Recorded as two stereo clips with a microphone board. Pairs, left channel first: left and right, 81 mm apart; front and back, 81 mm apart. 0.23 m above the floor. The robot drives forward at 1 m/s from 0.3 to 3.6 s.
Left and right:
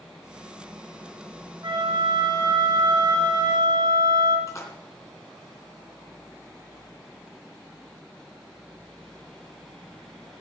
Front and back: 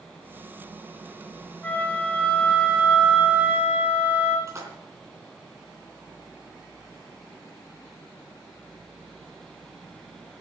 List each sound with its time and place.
1.6 s a flute: 65° right, 3 m; by 4.4 s 105° right, 3 m
4.5 s a splash: 135° left, 3 m